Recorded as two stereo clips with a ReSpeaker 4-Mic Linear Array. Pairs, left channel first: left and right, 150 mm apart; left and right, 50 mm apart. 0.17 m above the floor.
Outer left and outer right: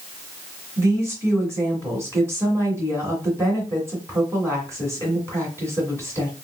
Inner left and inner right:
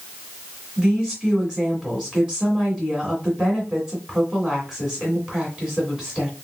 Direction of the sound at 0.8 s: 15° right (ahead or behind).